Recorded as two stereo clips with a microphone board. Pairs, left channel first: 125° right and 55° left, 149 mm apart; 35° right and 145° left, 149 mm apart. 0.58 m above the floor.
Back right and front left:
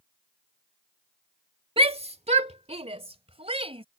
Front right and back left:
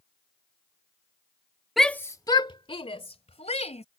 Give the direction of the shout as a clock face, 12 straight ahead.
10 o'clock.